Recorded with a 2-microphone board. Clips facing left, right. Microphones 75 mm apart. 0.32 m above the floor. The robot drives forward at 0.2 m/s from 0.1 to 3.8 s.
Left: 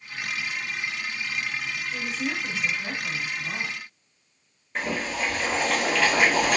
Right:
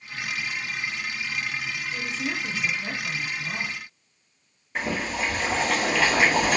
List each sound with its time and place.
1.9 s a woman speaking: 15° left (ahead or behind), 1.6 m
4.8 s boiling: 5° right (ahead or behind), 1.2 m